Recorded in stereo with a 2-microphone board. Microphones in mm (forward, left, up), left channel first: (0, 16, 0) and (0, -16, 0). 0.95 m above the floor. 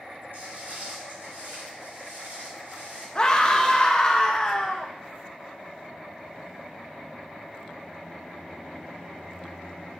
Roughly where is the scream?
Left.